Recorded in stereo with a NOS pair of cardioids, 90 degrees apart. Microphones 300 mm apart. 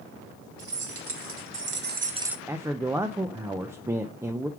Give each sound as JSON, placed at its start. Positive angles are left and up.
{"t": 0.6, "sound": "keys jangling", "azimuth_deg": -50, "distance_m": 3.0}
{"t": 2.5, "sound": "a man speaking", "azimuth_deg": -10, "distance_m": 0.6}